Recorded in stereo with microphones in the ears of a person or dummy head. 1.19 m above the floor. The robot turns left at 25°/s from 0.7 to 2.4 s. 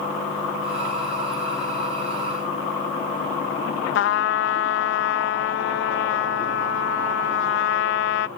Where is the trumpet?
65° left (ahead or behind).